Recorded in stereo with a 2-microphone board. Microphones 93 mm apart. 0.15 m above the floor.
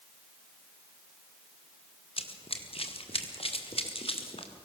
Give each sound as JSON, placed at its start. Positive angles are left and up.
{"t": 2.2, "sound": "running footsteps", "side_deg": 80, "distance_m": 2.5}